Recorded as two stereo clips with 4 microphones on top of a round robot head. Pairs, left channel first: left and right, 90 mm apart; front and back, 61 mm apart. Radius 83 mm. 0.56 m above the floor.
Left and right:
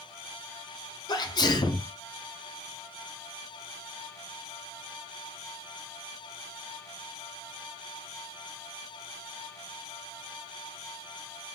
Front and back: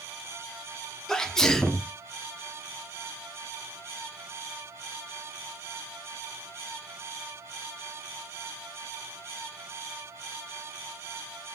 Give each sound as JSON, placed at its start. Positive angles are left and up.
{"t": 1.1, "sound": "a sneeze", "azimuth_deg": 80, "distance_m": 1.0}